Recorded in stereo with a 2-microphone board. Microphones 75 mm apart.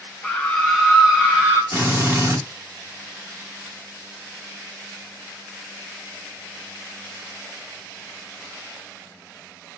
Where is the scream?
15° left (ahead or behind), 1.2 m; by 1.6 s 25° right (ahead or behind), 1.3 m.